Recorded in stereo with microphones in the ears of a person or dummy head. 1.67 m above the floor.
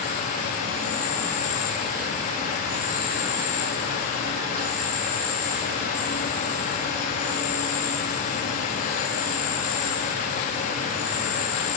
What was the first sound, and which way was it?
An insect, 50° left (ahead or behind).